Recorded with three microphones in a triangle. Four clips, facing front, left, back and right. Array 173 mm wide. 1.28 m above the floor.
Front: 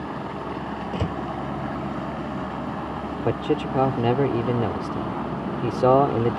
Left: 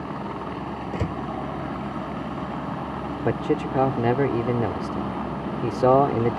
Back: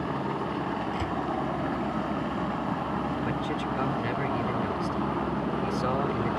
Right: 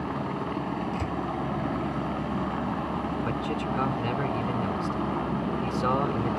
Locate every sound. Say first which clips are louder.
0.9 s a door slam: left 2 dB, front 3 dB; 45° left
3.2 s a man speaking: left 5 dB, front 6 dB; 45° left